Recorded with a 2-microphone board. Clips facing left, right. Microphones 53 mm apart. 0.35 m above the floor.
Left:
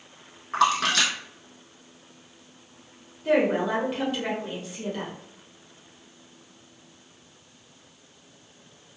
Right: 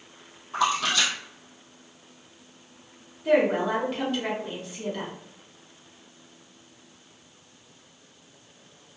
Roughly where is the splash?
Left.